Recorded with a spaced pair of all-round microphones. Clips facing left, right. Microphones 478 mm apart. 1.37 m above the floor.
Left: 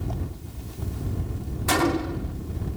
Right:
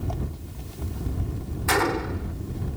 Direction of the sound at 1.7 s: 50° left (ahead or behind).